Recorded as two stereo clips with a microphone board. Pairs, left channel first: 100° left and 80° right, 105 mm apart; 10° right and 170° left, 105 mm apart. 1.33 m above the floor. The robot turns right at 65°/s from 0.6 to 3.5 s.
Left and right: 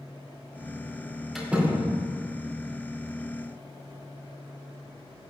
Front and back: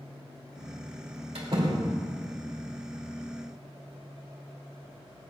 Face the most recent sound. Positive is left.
turn(degrees=-30)